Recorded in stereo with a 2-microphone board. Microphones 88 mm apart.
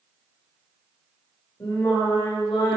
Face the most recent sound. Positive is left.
turn(degrees=55)  # may be behind; listen again after turning